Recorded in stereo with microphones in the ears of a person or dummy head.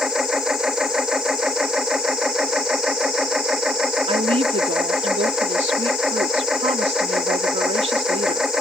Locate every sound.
0.0 s a machine running: 5° right (ahead or behind)
4.1 s a woman speaking: 30° right (ahead or behind)